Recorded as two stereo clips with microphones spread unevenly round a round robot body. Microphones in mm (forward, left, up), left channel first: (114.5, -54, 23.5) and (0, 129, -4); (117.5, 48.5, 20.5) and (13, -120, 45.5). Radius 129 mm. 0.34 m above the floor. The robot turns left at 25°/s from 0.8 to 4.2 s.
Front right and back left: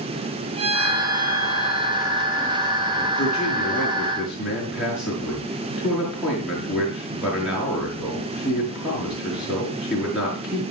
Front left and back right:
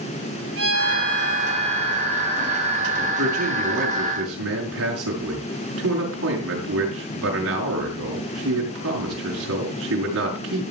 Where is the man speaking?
125° right, 5.5 m; by 10.7 s 150° right, 5.5 m.